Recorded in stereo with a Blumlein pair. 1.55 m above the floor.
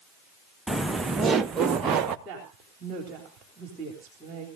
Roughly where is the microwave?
I don't hear a microwave.